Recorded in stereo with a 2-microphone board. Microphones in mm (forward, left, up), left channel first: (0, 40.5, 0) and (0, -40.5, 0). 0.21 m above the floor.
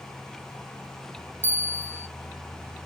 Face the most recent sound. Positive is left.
turn(degrees=20)  # may be behind; listen again after turning